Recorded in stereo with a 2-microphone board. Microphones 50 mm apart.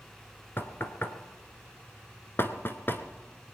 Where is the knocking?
50° left (ahead or behind), 1.0 m.